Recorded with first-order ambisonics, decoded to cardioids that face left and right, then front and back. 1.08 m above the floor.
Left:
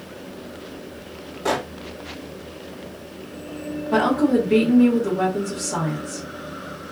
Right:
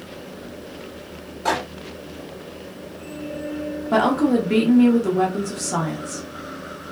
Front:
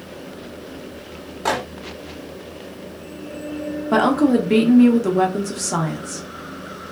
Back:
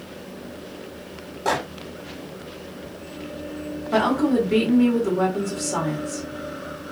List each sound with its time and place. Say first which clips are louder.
1.4 s a microwave: right 1 dB, front 1 dB; straight ahead, 1.3 m
3.9 s a woman speaking: even, front 3 dB; 20° right, 0.9 m